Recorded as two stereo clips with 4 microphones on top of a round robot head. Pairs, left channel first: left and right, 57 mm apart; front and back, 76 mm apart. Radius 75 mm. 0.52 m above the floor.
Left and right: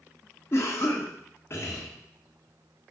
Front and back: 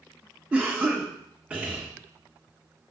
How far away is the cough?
About 1.3 m.